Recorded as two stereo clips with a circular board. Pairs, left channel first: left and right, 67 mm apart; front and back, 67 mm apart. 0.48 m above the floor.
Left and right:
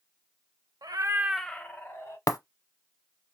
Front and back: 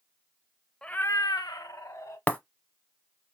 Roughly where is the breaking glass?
Ahead left.